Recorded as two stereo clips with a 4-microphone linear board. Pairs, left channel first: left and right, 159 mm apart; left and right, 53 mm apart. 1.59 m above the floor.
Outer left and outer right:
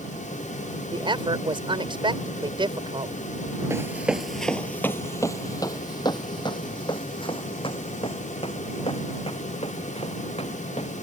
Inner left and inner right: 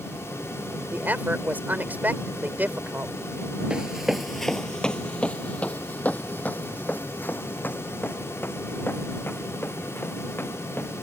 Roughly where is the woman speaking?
Right.